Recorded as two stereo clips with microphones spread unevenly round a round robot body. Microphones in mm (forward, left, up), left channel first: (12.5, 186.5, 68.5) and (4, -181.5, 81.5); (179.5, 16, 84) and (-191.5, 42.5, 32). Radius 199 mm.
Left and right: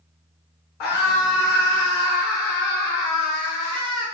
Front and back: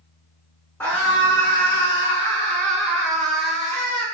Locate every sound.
0.8 s a scream: 80° left, 6.5 m; by 4.0 s 75° left, 8.5 m